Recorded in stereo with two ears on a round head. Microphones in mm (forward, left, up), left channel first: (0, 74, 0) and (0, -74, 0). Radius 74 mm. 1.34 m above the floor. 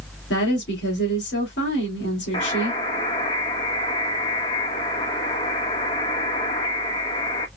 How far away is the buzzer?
About 1.3 m.